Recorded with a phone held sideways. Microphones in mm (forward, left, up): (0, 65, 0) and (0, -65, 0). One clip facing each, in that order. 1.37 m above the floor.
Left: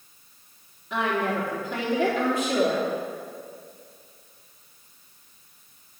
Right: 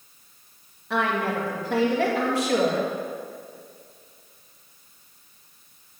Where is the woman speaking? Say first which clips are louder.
Right 1 dB; 85° right, 2 m.